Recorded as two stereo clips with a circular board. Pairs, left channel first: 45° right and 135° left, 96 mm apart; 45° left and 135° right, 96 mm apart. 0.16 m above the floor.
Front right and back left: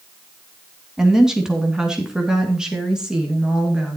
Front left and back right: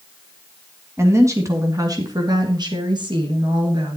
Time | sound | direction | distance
1.0 | a woman speaking | 150° right | 1.6 m